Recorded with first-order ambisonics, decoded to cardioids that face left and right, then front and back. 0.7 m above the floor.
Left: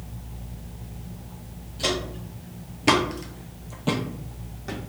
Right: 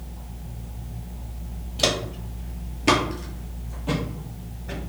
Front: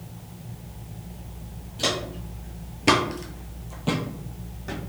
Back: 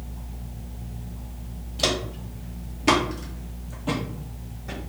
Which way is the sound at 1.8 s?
110° right.